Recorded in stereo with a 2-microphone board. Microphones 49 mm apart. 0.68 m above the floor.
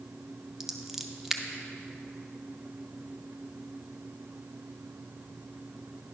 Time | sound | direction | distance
0.6 | scissors | 5° right (ahead or behind) | 0.6 m